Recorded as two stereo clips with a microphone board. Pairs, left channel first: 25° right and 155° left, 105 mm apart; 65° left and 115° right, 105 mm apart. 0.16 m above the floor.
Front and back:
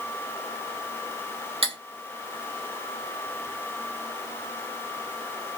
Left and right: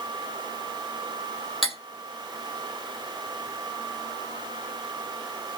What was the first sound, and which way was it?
Cutlery clinking, 160° left.